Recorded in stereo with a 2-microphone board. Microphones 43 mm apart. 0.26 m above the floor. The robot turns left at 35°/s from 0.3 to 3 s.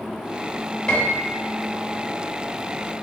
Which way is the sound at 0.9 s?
20° left (ahead or behind).